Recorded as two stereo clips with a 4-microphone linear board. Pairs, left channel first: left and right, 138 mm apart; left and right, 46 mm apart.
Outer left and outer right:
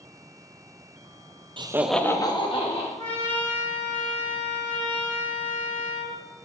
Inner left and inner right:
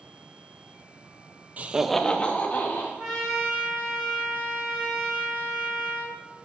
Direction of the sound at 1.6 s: 40° right (ahead or behind).